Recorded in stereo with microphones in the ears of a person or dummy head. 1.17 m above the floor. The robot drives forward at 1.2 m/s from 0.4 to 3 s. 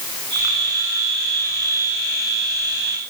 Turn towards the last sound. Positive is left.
No sound to turn to.